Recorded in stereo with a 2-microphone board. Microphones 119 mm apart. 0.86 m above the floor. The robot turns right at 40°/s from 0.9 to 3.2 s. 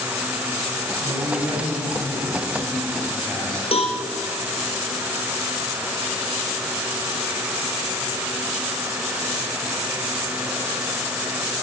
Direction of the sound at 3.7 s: 55° left (ahead or behind).